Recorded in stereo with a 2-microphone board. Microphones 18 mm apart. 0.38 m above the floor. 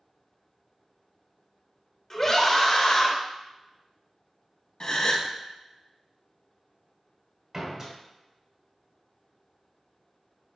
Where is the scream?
25° left (ahead or behind), 1.0 m; by 3.1 s 45° left (ahead or behind), 1.3 m.